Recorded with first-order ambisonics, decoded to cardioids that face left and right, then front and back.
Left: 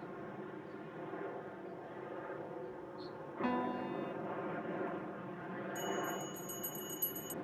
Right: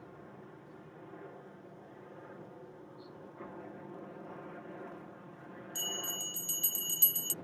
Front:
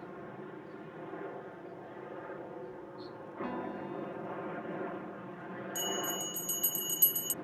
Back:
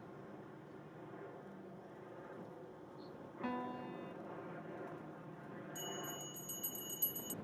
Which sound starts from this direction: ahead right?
A bell, at 5.8 s.